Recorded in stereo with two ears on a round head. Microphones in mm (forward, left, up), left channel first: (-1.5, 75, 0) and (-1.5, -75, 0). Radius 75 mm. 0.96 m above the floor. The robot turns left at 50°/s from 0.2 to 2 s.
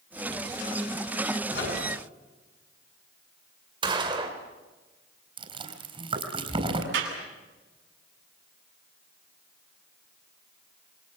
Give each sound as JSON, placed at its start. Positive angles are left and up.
{"t": 1.5, "sound": "a microwave", "side_deg": 70, "distance_m": 9.5}
{"t": 3.8, "sound": "a gunshot", "side_deg": -30, "distance_m": 3.5}
{"t": 5.4, "sound": "chewing", "side_deg": -30, "distance_m": 4.0}
{"t": 6.9, "sound": "a clap", "side_deg": -85, "distance_m": 8.5}